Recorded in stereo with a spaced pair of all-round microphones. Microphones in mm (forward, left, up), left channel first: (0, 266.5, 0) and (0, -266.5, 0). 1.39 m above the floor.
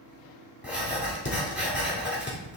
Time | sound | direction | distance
0.6 | writing | 20° left (ahead or behind) | 1.8 m